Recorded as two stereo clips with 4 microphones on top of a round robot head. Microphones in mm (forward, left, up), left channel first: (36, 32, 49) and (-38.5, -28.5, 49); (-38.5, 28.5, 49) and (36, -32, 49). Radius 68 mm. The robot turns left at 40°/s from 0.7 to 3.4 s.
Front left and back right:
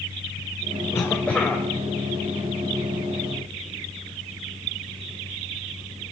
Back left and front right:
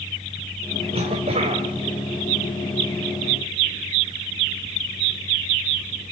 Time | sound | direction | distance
0.9 | a cough | 25° right | 2.5 m